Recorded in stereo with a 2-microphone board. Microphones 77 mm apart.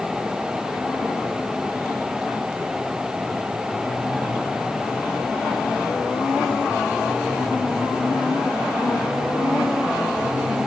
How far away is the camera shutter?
I don't hear a camera shutter.